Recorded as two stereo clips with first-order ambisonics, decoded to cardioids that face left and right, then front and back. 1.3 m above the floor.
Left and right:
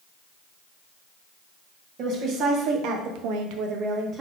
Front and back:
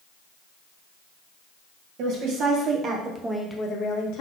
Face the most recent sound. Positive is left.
turn(degrees=-20)